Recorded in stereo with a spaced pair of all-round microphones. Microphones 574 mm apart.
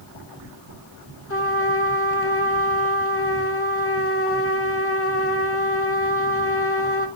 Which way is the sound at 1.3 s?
25° left (ahead or behind).